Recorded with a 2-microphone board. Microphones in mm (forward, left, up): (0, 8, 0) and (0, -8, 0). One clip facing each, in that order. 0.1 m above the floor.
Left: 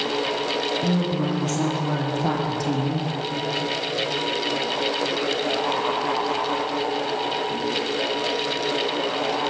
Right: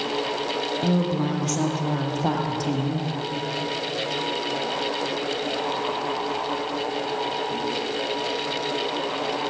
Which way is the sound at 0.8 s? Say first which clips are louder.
Even; 35° right (ahead or behind).